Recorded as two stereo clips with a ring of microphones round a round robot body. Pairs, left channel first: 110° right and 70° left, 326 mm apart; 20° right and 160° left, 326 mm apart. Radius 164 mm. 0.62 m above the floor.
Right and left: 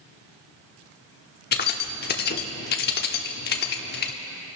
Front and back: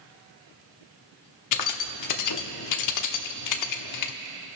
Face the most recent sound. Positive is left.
turn(degrees=-55)